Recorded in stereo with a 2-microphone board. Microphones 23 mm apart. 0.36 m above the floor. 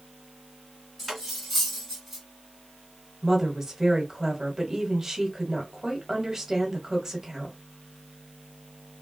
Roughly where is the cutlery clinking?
Centre.